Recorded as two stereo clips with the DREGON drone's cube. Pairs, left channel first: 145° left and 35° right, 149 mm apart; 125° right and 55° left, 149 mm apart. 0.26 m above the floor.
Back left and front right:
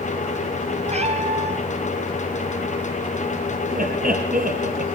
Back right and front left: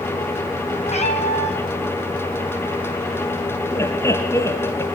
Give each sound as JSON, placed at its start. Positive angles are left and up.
{"t": 0.9, "sound": "a cat meowing", "azimuth_deg": -80, "distance_m": 3.0}
{"t": 3.7, "sound": "laughter", "azimuth_deg": -55, "distance_m": 4.0}